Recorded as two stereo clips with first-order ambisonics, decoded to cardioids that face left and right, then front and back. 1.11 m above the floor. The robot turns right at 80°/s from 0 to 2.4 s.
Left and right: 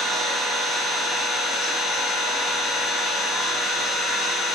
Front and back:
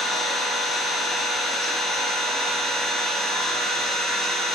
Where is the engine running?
110° right, 0.8 m; by 4.5 s 80° left, 0.8 m.